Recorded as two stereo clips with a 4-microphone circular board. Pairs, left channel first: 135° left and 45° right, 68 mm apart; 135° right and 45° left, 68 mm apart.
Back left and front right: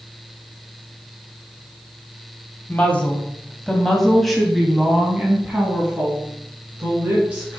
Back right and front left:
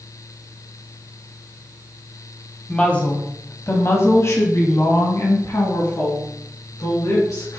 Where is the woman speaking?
170° left, 1.3 m; by 7.6 s 115° right, 3 m.